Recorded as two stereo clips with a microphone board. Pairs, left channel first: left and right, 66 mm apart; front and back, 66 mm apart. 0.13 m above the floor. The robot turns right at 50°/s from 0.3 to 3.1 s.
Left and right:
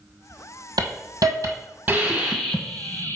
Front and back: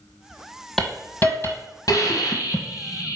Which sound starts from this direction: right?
A hiss, at 0.8 s.